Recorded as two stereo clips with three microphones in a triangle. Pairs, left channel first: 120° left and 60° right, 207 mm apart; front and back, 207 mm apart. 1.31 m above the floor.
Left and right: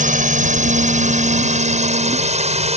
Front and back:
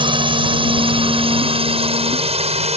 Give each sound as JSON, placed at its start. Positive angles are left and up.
{"t": 0.0, "sound": "a drone", "azimuth_deg": -115}